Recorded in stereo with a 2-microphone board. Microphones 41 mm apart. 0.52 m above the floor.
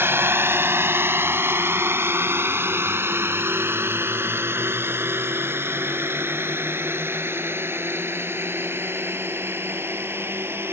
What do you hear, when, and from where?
0.0 s a drone: 65° right (ahead or behind)